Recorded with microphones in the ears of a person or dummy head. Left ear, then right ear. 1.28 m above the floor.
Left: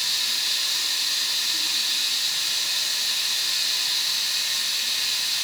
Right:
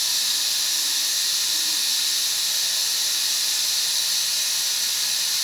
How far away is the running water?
About 9 m.